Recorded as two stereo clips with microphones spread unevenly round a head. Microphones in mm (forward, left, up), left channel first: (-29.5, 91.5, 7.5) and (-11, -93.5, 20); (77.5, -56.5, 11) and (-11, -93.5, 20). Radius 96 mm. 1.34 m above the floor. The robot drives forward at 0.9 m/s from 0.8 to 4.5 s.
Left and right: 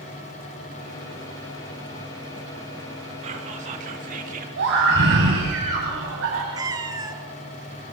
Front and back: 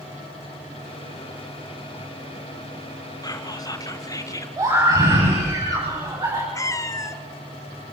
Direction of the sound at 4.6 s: 105° right.